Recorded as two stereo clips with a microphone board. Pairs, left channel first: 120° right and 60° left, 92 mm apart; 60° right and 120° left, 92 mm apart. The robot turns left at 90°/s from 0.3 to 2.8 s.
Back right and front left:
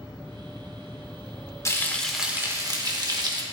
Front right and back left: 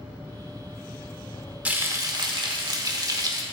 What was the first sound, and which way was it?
Frying, 170° right.